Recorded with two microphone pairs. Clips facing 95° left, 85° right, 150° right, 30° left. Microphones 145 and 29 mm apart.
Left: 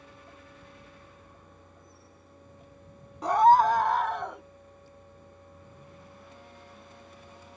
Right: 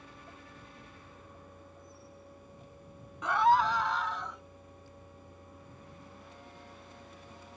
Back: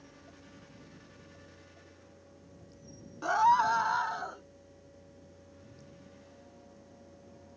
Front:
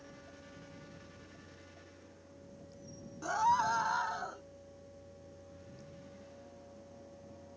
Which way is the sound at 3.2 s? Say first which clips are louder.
Left 6 dB, back 5 dB; 150° left.